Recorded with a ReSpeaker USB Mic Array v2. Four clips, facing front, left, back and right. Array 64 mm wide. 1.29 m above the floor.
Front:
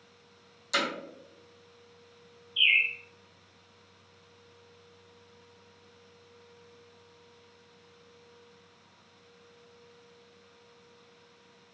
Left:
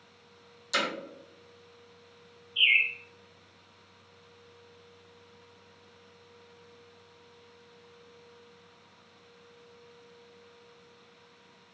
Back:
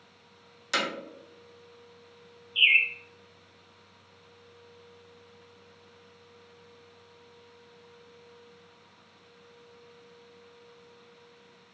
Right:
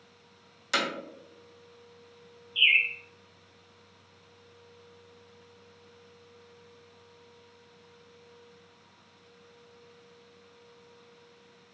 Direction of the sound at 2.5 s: 165° right.